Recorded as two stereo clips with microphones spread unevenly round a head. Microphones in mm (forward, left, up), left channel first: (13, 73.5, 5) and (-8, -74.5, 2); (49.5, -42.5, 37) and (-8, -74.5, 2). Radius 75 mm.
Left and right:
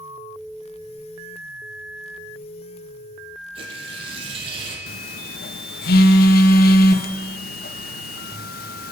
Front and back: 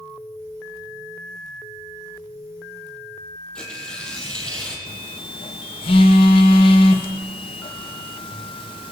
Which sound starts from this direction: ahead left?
A phone buzzing, at 4.9 s.